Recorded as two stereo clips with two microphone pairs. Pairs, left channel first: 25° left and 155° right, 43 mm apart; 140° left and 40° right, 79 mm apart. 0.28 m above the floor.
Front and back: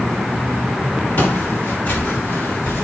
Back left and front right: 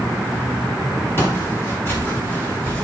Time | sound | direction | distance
1.2 | footsteps | 75° left | 8 m